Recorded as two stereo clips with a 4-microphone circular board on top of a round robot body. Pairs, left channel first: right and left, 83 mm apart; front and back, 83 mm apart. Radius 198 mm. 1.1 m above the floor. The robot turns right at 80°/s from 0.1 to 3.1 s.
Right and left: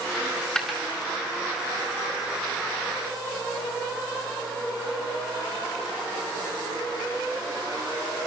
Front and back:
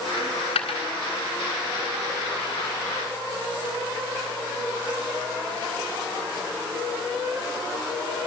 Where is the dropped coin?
40° right, 2.5 m; by 0.8 s 10° left, 2.5 m.